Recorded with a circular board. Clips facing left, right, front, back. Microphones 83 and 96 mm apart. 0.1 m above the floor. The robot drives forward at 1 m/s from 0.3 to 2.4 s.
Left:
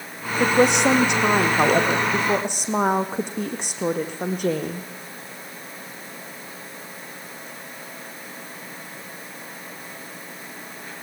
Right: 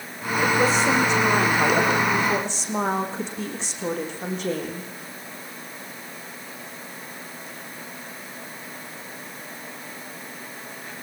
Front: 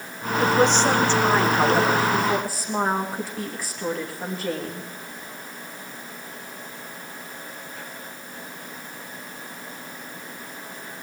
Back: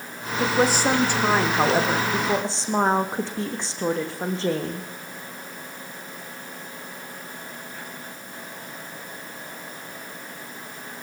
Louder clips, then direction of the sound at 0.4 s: Left 3 dB, front 2 dB; 95° left.